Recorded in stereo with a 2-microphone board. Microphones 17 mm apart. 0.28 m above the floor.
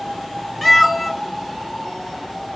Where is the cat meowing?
10° left (ahead or behind), 0.6 m.